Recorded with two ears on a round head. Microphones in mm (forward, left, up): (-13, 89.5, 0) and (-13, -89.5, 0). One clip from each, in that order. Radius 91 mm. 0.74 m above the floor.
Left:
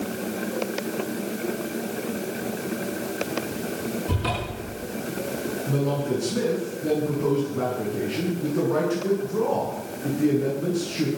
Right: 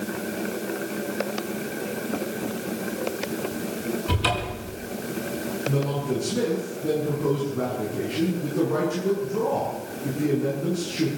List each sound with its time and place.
4.1 s a cupboard door: 65° right (ahead or behind), 7.5 m
5.7 s a man speaking: 10° left (ahead or behind), 8.5 m